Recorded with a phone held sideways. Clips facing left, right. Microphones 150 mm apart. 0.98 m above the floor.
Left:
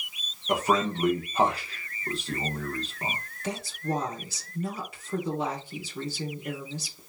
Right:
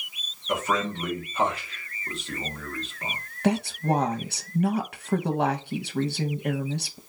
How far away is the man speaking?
About 0.9 m.